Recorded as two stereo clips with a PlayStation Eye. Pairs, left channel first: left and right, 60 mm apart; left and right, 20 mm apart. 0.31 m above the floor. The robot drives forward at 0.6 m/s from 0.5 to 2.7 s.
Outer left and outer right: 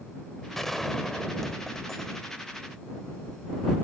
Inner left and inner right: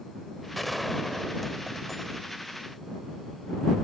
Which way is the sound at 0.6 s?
5° left (ahead or behind).